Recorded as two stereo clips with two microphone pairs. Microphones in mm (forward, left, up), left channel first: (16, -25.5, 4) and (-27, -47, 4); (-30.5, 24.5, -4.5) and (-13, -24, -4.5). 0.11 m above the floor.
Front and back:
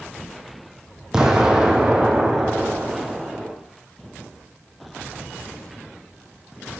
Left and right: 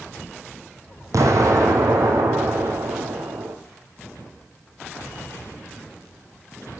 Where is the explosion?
75° right, 1.5 m.